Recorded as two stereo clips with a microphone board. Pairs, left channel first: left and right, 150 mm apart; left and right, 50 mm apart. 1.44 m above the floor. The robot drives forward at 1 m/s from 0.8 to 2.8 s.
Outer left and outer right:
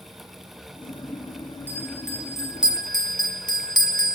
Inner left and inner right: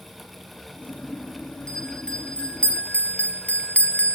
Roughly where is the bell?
Centre.